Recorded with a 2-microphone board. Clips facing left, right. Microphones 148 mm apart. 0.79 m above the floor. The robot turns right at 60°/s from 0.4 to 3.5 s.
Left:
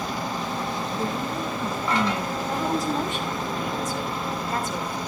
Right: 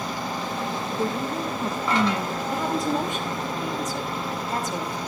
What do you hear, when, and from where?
0.9 s a woman speaking: 5° right (ahead or behind), 0.7 m; by 2.4 s 20° right (ahead or behind), 0.7 m
2.5 s a woman speaking: 160° left, 5 m; by 5.0 s 140° right, 5 m